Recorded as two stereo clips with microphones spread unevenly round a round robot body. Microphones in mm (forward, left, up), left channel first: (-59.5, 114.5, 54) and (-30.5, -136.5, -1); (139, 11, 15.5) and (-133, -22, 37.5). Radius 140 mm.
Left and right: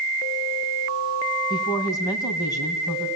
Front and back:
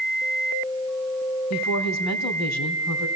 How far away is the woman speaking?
About 2.5 m.